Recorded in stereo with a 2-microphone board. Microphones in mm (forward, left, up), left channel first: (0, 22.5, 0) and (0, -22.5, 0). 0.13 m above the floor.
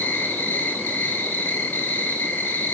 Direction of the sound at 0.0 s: 40° left (ahead or behind).